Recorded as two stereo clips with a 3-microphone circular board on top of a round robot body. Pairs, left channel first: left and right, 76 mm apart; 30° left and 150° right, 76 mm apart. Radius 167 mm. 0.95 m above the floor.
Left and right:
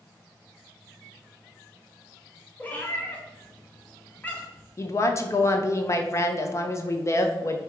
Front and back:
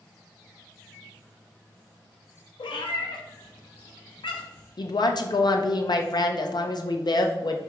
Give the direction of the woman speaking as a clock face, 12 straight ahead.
11 o'clock.